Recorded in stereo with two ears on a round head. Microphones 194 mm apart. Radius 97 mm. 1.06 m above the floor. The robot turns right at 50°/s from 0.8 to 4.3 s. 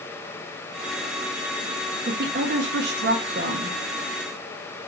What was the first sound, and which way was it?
A woman speaking, 125° right.